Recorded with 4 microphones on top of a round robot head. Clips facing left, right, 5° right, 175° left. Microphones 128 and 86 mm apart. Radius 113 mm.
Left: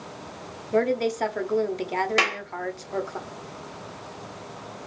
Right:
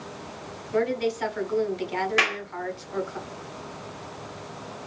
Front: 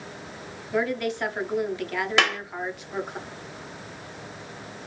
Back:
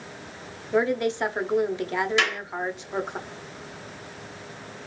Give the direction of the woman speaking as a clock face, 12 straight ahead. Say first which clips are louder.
Left 2 dB, back 3 dB; 8 o'clock.